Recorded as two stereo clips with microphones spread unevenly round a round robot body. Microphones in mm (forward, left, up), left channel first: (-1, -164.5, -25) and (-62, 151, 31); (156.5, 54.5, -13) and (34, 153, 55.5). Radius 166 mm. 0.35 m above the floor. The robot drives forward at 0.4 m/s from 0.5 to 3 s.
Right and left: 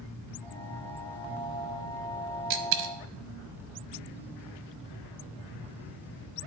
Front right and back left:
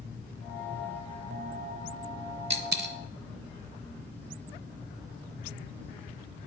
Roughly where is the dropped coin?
Behind left.